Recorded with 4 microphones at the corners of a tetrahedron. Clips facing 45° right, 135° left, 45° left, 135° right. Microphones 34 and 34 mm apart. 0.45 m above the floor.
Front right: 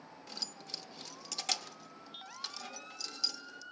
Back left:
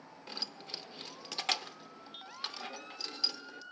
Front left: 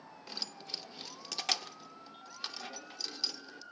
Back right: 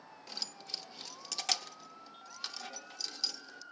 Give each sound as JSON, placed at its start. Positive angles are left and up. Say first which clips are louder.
{"t": 0.3, "sound": "keys jangling", "louder": "back left 2 dB, front left 1 dB", "azimuth_deg": 115, "distance_m": 0.7}